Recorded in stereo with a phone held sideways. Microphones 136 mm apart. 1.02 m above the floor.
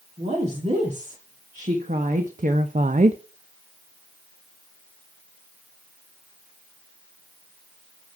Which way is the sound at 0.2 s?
55° right (ahead or behind).